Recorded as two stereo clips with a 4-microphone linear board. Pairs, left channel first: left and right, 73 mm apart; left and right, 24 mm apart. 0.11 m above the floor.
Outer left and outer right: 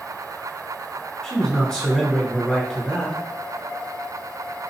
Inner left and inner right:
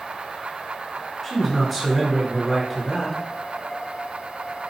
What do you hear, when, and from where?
1.2 s a man speaking: 10° left (ahead or behind), 1.6 m